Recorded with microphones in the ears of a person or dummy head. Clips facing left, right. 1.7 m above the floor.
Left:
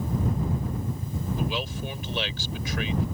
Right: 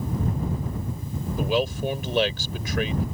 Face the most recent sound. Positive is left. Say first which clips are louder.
# right 11 dB
turn(degrees=-40)  # may be behind; listen again after turning